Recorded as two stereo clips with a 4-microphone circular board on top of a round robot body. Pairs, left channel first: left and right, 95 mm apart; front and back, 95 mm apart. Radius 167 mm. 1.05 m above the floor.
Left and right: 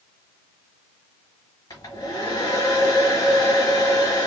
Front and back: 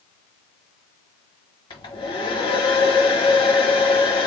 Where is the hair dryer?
35° left, 1.2 m.